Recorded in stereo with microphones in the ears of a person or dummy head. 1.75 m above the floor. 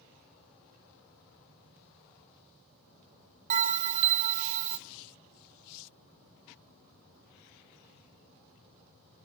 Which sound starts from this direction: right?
A bell, at 3.5 s.